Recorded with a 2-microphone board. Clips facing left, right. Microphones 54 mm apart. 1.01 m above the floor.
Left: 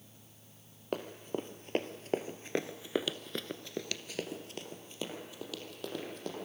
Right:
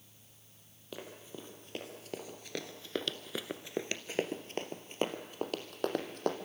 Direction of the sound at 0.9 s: 50° left (ahead or behind).